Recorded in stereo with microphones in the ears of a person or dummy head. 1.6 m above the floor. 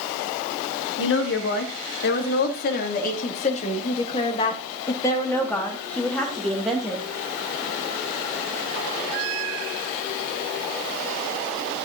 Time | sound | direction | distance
1.0 | a woman speaking | 75° left (ahead or behind) | 3 m